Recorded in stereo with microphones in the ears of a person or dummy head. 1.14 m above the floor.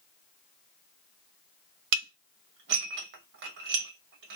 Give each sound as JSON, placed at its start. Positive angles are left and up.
{"t": 1.9, "sound": "dishes clattering", "side_deg": -75, "distance_m": 0.8}